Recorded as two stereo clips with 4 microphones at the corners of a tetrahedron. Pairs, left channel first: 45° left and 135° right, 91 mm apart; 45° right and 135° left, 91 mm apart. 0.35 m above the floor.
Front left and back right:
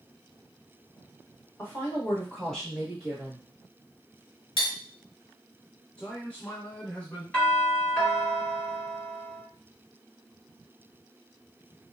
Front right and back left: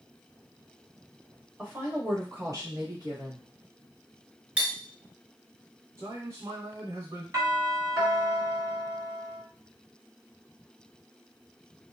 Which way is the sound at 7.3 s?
110° left.